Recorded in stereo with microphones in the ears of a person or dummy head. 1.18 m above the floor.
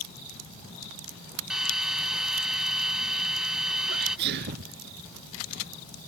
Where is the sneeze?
60° right (ahead or behind).